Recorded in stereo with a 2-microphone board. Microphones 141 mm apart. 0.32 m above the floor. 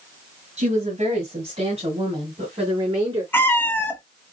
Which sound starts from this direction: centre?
A cat meowing, at 3.3 s.